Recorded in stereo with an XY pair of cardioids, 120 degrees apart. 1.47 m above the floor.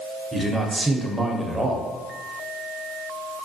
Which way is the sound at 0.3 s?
15° right.